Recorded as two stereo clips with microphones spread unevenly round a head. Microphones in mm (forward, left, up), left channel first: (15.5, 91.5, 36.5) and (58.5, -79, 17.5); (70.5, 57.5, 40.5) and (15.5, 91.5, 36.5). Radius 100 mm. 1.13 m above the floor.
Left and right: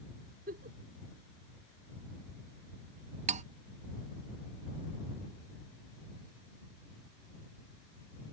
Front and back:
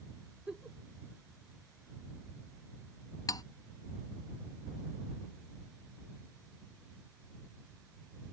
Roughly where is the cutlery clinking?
Ahead right.